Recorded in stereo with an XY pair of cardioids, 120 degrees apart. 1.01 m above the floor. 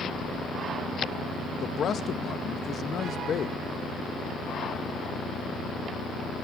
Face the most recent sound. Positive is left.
turn(degrees=50)